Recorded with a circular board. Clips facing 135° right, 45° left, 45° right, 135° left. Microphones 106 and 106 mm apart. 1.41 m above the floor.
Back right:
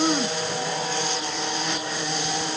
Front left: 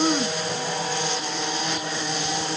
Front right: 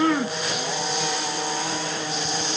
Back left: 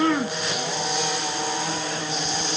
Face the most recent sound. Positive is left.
No sound to turn to.